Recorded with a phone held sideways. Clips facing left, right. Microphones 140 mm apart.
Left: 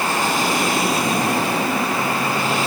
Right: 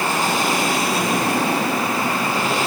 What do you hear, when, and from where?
Only background noise.